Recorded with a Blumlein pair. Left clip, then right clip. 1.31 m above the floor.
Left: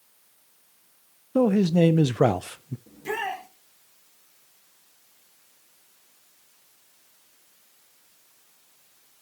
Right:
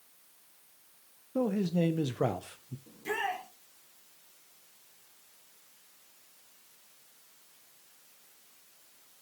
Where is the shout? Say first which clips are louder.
Left 3 dB; 15° left, 5.5 m.